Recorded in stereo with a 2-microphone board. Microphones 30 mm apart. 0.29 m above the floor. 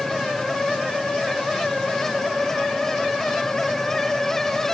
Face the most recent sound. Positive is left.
No sound to turn to.